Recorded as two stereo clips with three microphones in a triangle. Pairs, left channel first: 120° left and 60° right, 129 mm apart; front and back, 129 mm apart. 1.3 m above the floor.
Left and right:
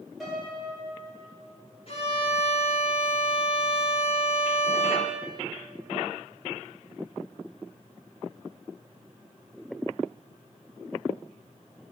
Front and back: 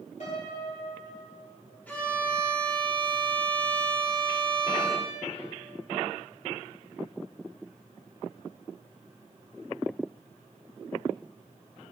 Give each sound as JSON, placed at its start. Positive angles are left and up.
{"t": 0.2, "sound": "a piano", "azimuth_deg": 30, "distance_m": 2.5}
{"t": 1.9, "sound": "a violin", "azimuth_deg": 80, "distance_m": 1.8}